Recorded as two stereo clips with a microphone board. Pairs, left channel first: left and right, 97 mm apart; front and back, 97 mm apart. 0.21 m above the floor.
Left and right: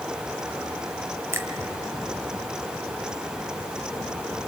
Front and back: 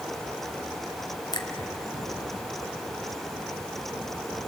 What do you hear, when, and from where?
1.3 s a finger snap: 30° right, 1.5 m